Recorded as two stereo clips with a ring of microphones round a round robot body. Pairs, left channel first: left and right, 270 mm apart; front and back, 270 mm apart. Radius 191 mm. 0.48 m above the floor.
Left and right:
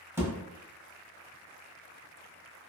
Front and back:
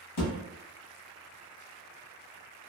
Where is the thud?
10° right, 1.2 m.